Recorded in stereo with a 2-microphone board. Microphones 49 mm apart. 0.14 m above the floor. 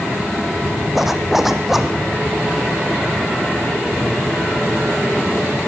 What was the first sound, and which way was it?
A zipper, 5° right (ahead or behind).